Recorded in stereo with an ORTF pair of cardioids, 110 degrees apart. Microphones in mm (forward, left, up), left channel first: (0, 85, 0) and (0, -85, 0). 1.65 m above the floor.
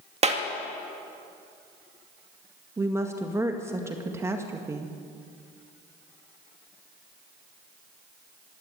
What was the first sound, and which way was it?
A clap, 40° right.